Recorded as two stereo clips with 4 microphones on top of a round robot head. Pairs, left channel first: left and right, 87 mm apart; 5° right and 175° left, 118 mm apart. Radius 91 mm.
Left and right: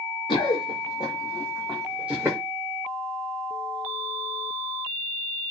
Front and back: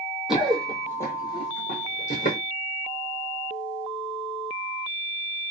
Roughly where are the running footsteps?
Left.